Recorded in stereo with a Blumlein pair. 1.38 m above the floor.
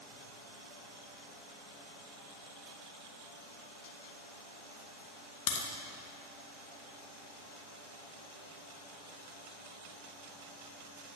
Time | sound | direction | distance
5.5 | a crack | 45° left | 1.2 m